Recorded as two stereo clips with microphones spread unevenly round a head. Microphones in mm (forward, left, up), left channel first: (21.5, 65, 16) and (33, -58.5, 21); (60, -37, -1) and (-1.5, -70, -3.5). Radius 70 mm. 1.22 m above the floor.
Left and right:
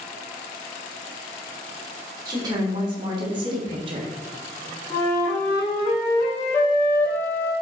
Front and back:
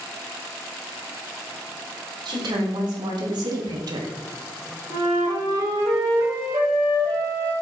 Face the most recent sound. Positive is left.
turn(degrees=165)